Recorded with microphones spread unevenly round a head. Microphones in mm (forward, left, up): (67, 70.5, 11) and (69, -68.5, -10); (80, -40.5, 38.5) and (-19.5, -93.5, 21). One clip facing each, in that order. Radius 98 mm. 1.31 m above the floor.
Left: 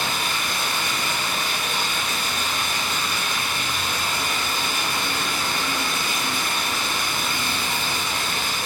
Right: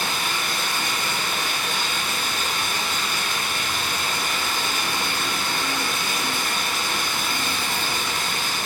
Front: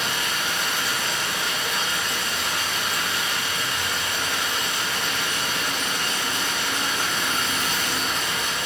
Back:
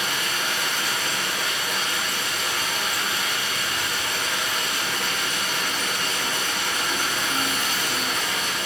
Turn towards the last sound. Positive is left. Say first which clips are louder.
# even, even
turn(degrees=-175)